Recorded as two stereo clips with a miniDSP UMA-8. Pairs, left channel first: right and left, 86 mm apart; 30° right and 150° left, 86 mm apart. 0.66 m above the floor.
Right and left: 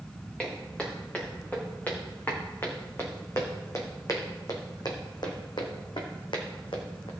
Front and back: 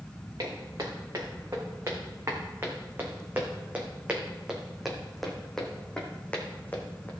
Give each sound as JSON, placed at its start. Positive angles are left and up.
{"t": 0.4, "sound": "footsteps", "azimuth_deg": -165, "distance_m": 4.5}